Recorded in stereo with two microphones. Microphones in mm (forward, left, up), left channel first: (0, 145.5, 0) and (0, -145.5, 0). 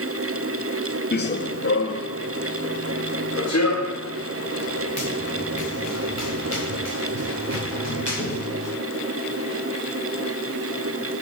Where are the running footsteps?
35° left (ahead or behind), 0.7 m; by 8.7 s 60° left (ahead or behind), 6 m.